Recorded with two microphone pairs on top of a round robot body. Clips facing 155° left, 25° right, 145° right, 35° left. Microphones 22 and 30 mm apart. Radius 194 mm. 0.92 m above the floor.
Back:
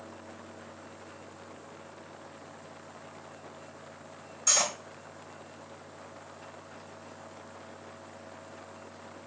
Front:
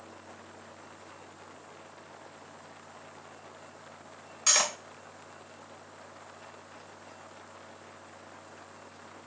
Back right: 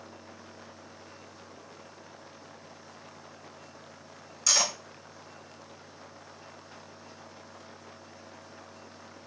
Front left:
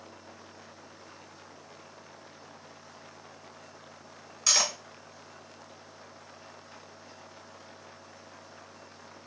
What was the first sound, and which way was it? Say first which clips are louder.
Cutlery clinking: front 1 dB, even; 40° right.